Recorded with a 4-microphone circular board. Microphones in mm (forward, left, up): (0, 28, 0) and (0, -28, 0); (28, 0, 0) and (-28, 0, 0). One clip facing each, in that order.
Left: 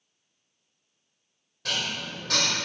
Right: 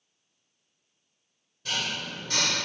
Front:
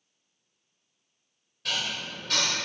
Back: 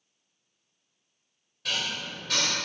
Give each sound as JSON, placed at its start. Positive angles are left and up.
{"t": 1.6, "sound": "dishes clattering", "azimuth_deg": 90, "distance_m": 1.9}